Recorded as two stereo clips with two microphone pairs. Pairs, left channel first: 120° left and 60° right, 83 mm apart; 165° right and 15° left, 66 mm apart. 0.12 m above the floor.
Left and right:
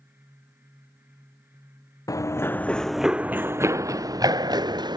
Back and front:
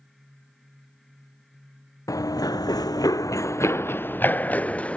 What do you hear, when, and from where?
2.1 s running footsteps: 165° left; by 5.0 s 90° right